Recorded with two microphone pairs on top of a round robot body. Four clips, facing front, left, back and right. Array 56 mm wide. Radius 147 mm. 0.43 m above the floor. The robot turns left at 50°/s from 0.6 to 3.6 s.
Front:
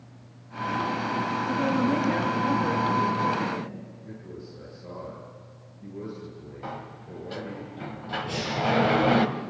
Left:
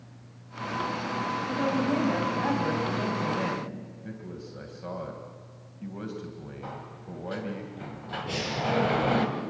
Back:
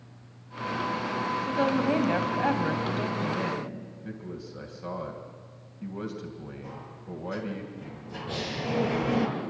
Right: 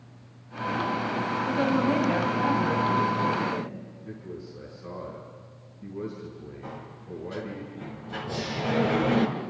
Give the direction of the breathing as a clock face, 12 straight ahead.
10 o'clock.